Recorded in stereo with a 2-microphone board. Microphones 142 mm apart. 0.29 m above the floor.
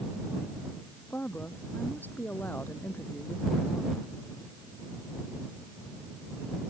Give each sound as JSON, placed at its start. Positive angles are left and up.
{"t": 1.1, "sound": "a woman speaking", "side_deg": 10}